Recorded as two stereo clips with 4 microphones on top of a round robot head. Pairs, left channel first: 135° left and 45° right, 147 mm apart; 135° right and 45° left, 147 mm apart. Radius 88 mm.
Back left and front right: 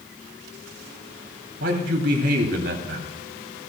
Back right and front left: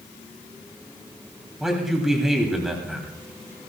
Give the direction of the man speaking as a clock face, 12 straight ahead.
1 o'clock.